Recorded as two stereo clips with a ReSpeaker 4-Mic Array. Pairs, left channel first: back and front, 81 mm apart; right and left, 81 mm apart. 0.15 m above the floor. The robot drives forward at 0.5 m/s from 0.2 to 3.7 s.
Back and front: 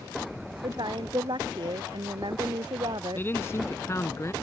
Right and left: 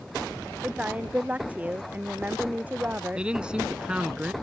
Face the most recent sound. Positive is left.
turn(degrees=160)